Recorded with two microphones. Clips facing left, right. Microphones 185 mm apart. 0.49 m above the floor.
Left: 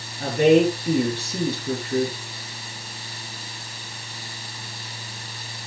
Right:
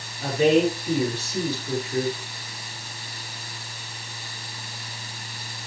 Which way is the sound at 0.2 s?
55° left (ahead or behind).